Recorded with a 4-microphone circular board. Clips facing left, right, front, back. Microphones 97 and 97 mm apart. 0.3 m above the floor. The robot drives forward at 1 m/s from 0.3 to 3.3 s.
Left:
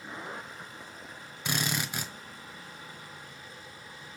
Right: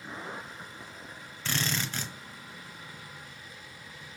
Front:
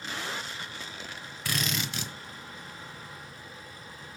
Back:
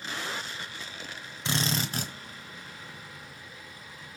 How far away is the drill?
About 1.0 m.